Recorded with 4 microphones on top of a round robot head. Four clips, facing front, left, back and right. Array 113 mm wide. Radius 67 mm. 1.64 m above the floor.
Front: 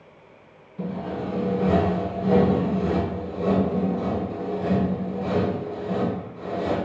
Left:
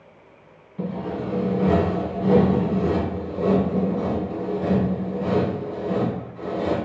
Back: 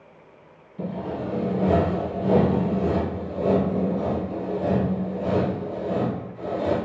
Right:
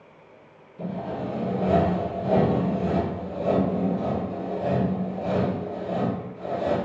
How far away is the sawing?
About 1.7 m.